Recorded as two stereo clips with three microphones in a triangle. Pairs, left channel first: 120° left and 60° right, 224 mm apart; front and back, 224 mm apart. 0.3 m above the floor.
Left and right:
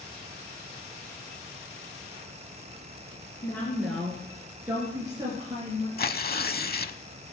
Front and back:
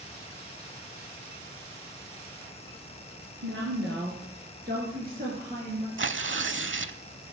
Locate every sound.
3.4 s a woman speaking: 160° right, 3 m; by 5.9 s 125° right, 5 m
6.0 s tearing paper: 160° left, 0.6 m